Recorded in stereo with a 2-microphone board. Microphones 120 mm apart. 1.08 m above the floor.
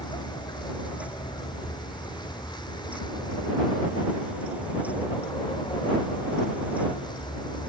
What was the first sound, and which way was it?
A vehicle, 35° left (ahead or behind).